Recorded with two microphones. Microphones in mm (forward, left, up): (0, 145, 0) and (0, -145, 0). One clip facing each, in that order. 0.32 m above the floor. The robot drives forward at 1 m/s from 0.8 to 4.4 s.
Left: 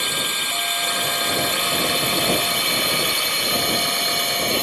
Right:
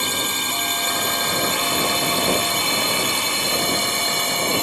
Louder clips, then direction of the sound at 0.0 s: Right 3 dB; 55° right (ahead or behind).